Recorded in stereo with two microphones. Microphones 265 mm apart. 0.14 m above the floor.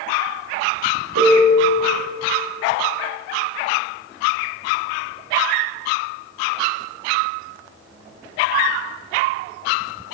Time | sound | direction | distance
1.1 | a piano | 70° right (ahead or behind) | 3 m